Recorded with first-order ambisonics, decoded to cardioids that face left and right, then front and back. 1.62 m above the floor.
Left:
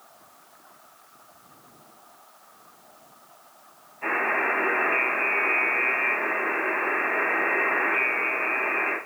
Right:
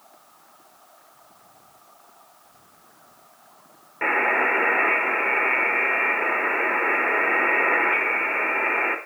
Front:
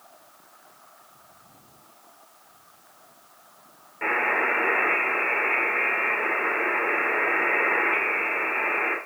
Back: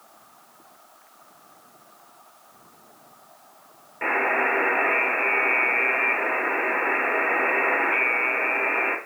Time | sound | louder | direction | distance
4.0 | a buzzer | right 4 dB, back 1 dB | 100° right | 6 m